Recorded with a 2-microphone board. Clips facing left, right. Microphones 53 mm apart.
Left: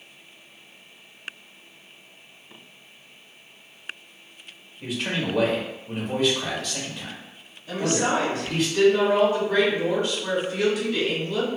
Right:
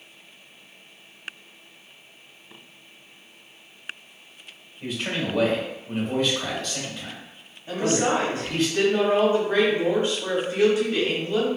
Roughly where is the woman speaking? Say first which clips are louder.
Right 1 dB; right.